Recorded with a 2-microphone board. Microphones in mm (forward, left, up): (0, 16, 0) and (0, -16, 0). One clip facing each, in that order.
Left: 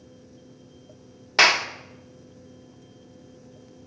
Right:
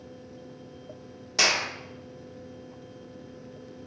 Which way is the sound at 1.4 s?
50° left (ahead or behind).